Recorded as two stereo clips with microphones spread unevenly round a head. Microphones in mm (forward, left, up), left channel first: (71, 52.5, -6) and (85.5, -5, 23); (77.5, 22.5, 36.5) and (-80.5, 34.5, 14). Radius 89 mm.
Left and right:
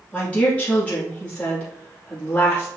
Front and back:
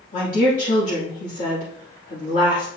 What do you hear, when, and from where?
0.1 s a woman speaking: 30° left, 2.5 m